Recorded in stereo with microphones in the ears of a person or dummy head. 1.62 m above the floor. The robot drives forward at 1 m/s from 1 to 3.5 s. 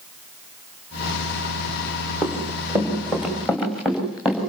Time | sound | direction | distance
2.2 | running footsteps | 15° right (ahead or behind) | 5 m